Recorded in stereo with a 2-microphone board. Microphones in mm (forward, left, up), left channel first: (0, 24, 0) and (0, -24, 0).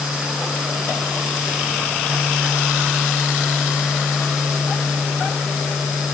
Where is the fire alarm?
I don't hear a fire alarm.